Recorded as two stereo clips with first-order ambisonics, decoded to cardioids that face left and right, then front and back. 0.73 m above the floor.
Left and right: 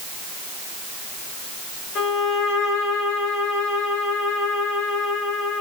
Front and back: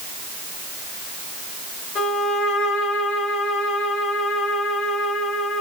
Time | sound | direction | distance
1.9 | a violin | 40° left | 2.5 m